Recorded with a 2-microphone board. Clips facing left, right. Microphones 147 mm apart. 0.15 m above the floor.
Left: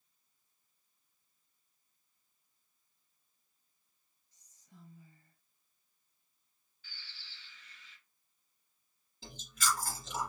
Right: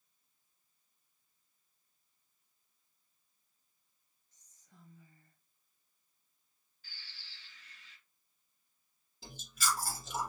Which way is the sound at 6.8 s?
45° right (ahead or behind).